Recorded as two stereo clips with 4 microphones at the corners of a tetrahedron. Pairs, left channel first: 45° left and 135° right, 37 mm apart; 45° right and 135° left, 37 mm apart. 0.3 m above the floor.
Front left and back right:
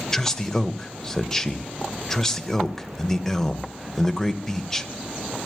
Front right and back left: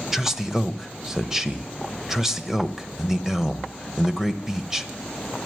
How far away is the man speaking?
About 1.0 m.